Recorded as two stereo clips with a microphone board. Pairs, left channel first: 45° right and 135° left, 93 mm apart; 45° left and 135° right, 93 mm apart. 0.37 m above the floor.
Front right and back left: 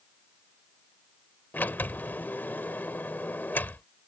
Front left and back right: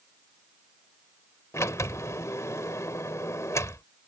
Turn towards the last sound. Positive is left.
turn(degrees=10)